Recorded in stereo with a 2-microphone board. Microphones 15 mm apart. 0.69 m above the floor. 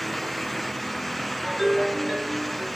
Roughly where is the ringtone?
Centre.